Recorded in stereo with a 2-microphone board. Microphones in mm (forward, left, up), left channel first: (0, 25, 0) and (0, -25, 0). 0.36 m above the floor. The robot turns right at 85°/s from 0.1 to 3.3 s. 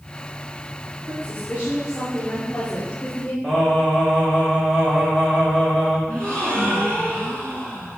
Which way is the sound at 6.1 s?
30° left (ahead or behind).